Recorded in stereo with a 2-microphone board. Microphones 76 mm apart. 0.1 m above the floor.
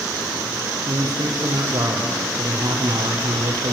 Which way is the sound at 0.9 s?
65° right (ahead or behind).